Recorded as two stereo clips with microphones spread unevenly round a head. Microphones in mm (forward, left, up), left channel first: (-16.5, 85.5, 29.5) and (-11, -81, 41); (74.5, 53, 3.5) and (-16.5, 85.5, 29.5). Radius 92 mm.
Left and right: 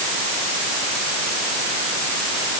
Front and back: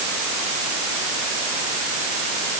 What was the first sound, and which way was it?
Only background noise.